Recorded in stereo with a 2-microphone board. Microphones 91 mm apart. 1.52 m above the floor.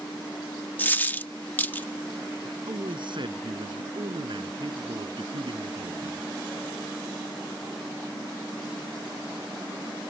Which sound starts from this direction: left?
A dropped coin, at 0.8 s.